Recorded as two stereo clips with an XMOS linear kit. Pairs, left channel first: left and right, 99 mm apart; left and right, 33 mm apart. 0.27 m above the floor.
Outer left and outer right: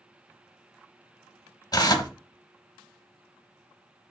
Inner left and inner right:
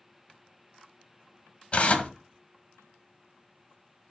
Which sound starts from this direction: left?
Tearing paper, at 1.7 s.